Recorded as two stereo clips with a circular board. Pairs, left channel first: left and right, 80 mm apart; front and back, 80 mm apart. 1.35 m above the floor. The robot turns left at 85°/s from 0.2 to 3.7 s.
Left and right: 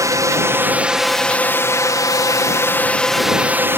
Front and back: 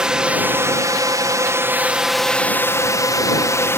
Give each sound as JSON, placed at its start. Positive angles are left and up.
{"t": 0.0, "sound": "a drone", "azimuth_deg": -105}